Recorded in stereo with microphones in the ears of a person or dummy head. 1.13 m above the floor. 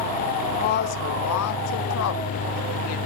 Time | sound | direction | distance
0.6 | a woman speaking | 35° left (ahead or behind) | 0.7 m